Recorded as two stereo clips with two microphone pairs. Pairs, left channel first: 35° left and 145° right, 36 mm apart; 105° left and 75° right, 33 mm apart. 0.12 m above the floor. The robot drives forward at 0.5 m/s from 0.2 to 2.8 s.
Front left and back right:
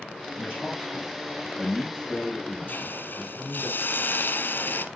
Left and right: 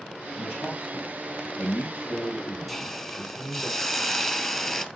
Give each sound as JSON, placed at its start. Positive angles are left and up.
{"t": 0.4, "sound": "a man speaking", "azimuth_deg": 115, "distance_m": 5.0}
{"t": 2.7, "sound": "a hiss", "azimuth_deg": 30, "distance_m": 0.7}